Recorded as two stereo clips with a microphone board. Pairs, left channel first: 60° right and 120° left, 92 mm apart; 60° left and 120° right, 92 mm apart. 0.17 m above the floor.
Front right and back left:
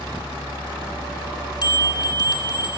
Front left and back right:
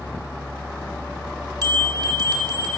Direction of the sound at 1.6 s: 80° right.